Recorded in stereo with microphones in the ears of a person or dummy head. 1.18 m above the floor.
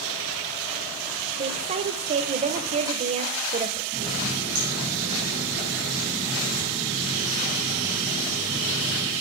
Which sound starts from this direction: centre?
A running tap, at 3.9 s.